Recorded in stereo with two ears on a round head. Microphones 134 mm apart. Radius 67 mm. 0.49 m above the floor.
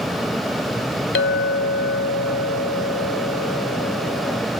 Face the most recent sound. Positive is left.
turn(degrees=80)